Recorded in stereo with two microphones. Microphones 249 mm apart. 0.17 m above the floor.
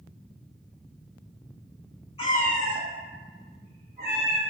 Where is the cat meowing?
25° left (ahead or behind), 0.5 m; by 4.4 s 45° right (ahead or behind), 1.2 m.